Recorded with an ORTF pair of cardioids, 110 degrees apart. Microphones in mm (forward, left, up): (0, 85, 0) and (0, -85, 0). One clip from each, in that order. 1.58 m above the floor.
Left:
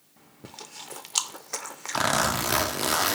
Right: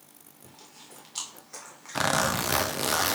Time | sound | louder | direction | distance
0.4 | chewing | left 9 dB | 50° left | 0.6 m
1.9 | a zipper | left 1 dB | straight ahead | 0.5 m